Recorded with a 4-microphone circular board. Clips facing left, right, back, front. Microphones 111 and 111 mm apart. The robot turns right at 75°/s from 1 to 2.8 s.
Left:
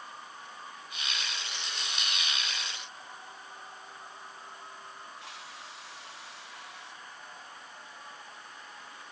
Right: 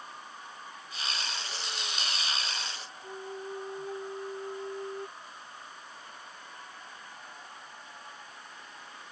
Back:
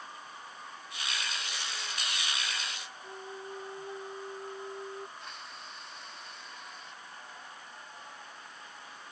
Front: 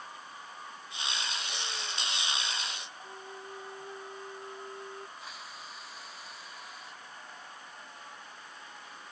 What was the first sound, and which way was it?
A flute, 105° right.